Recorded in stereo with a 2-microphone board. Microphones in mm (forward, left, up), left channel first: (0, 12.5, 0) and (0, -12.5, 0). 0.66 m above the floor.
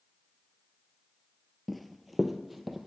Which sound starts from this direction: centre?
Running footsteps, at 1.7 s.